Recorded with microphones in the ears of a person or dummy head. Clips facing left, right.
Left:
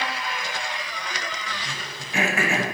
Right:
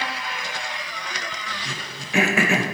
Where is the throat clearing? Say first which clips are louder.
Right 2 dB; 60° right (ahead or behind), 1.0 m.